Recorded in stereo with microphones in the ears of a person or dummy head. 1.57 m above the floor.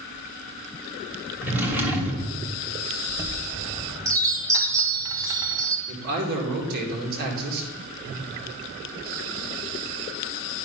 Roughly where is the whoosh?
Centre.